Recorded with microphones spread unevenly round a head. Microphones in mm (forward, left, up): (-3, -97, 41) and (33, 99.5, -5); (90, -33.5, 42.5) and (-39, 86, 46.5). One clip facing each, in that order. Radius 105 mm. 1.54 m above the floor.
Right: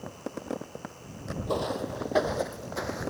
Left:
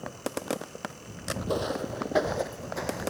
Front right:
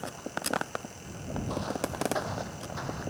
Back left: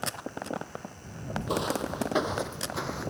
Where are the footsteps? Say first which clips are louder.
Even, back left 4 dB; 165° left; by 3.1 s straight behind.